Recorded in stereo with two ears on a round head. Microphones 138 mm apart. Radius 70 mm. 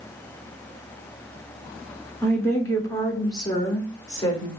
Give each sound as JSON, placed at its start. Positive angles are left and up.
{"t": 2.2, "sound": "a woman speaking", "side_deg": 15, "distance_m": 1.0}